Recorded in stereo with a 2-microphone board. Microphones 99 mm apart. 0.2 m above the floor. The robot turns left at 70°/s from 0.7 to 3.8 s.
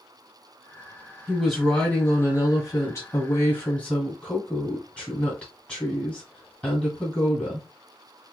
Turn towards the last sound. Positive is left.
turn(degrees=20)